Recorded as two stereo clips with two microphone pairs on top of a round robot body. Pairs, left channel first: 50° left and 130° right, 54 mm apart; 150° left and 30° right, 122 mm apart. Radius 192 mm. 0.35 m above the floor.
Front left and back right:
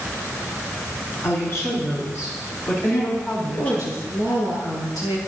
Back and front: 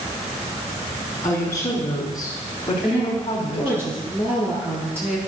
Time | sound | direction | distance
1.2 | a woman speaking | 75° left | 5.5 m
2.8 | a woman speaking | 45° left | 9 m